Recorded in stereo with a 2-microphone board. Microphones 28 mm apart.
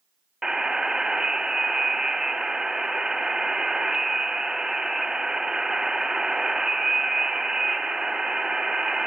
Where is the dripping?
I don't hear dripping.